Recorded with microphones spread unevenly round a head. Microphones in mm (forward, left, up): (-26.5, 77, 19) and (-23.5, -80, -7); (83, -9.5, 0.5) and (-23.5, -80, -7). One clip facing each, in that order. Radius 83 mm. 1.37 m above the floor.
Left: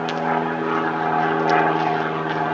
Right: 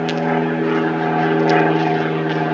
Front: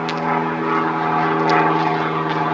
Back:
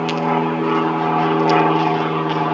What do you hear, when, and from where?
0.0 s an aircraft: 90° right; by 2.5 s 75° right